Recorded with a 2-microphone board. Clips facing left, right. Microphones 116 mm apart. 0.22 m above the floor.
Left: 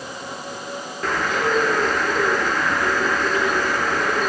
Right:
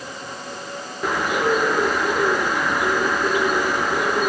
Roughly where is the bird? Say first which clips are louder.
Right 1 dB; centre.